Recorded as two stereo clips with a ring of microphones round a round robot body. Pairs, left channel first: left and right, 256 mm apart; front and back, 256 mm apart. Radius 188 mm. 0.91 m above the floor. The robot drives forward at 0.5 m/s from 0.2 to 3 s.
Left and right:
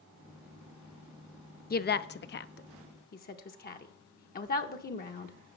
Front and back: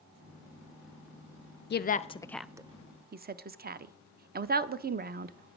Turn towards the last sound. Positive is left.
turn(degrees=135)